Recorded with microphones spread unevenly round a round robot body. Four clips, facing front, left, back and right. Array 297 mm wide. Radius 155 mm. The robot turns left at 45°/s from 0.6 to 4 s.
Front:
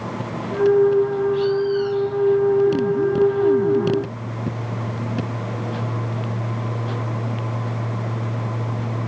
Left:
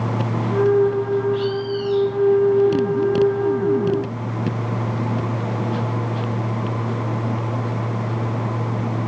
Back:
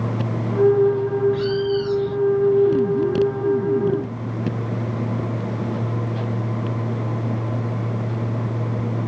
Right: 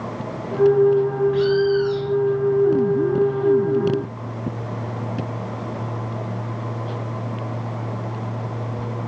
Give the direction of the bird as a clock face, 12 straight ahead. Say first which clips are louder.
Right 5 dB, front 2 dB; 5 o'clock.